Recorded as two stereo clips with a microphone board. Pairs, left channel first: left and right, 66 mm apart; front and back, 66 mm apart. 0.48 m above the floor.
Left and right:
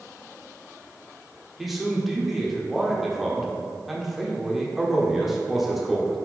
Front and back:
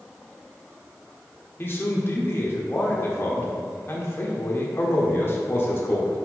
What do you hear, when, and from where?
1.6 s a man speaking: straight ahead, 1.1 m